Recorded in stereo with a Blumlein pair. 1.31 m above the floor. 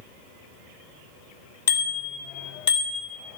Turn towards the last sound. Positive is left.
turn(degrees=55)